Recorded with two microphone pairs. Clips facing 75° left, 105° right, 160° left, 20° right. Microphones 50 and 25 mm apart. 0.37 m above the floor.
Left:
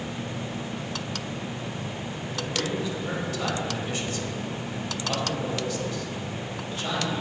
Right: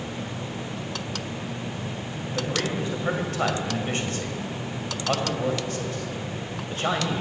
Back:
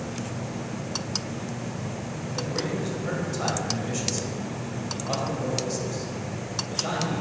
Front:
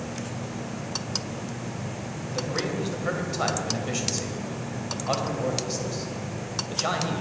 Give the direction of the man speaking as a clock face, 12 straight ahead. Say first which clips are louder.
Right 2 dB, front 1 dB; 2 o'clock.